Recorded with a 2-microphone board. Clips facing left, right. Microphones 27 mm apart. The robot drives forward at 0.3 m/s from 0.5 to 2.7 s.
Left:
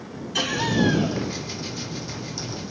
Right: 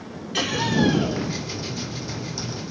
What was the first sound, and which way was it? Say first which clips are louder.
Laughter: right 1 dB; 40° right (ahead or behind).